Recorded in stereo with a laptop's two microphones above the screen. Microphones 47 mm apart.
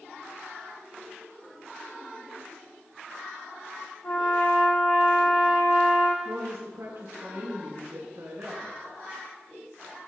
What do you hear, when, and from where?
4.0 s a trumpet: 50° left (ahead or behind), 1.5 m
6.2 s a woman speaking: 65° right (ahead or behind), 1.1 m